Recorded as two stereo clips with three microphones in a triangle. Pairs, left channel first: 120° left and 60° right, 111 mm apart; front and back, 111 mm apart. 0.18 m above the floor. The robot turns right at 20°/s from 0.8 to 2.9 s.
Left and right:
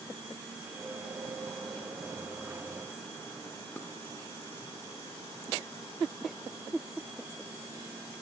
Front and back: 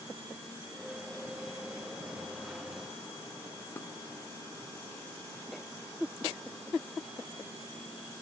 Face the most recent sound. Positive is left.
turn(degrees=55)